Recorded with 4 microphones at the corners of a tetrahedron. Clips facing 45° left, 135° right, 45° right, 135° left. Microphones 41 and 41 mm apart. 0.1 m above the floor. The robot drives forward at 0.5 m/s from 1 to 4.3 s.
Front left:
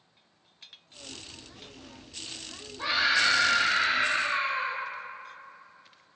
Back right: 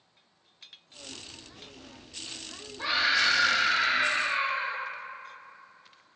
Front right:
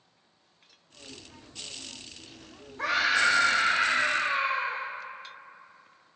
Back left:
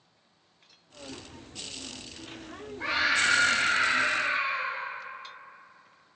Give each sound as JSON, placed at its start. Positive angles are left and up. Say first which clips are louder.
{"t": 2.8, "sound": "a scream", "louder": "front left 1 dB, front right 1 dB", "azimuth_deg": -45, "distance_m": 4.0}